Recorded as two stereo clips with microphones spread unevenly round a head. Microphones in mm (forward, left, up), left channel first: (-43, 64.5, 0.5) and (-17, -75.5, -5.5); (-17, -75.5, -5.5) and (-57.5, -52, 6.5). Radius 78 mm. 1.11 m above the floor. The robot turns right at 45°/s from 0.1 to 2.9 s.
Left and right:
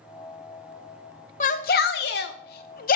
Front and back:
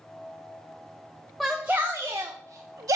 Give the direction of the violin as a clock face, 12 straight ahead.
I don't hear a violin.